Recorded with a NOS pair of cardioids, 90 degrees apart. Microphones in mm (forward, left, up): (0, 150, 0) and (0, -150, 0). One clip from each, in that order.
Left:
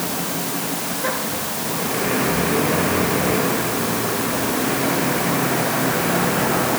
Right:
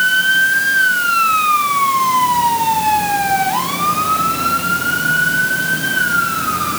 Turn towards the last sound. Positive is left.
No sound to turn to.